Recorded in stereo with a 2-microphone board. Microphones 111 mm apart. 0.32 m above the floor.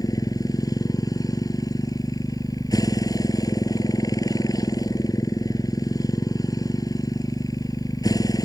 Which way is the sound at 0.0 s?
35° left (ahead or behind).